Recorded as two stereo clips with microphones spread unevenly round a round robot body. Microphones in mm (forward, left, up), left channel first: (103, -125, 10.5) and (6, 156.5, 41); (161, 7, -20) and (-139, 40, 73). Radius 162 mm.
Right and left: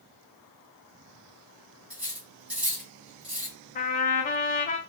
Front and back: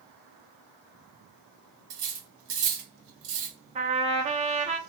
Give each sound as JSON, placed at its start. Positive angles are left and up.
{"t": 1.9, "sound": "cutlery clinking", "azimuth_deg": -165, "distance_m": 1.4}
{"t": 3.8, "sound": "a trumpet", "azimuth_deg": -105, "distance_m": 0.6}